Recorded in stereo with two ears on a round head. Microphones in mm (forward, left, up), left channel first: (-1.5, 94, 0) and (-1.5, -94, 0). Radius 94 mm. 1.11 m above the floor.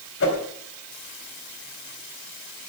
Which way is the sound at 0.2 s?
60° left (ahead or behind).